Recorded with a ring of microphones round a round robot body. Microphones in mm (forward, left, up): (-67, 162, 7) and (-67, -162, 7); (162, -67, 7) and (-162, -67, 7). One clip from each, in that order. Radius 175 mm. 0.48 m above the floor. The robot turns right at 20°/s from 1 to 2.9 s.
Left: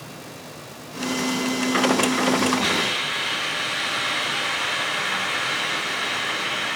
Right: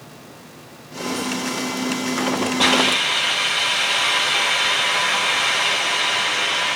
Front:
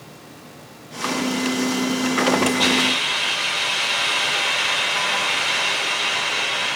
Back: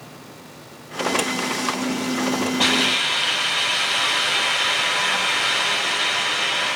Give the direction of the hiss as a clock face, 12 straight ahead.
3 o'clock.